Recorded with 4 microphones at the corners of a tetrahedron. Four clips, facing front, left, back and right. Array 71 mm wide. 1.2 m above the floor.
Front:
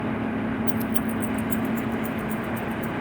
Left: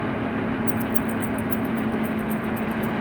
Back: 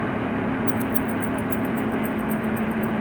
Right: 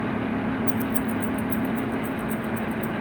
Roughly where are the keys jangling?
Ahead.